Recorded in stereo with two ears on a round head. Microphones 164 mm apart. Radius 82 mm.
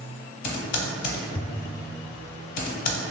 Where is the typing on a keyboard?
45° left (ahead or behind), 0.7 m.